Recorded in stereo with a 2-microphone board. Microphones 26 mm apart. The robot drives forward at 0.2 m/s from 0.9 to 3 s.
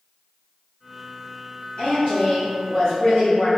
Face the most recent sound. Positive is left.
turn(degrees=30)  # may be behind; listen again after turning